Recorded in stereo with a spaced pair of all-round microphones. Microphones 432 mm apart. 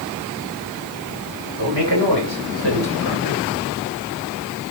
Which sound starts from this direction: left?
A man speaking, at 1.6 s.